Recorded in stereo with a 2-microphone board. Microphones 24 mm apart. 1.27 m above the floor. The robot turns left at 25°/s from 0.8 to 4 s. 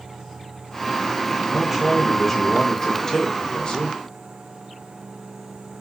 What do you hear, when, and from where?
1.5 s a man speaking: 170° right, 0.5 m; by 4.0 s 130° left, 0.5 m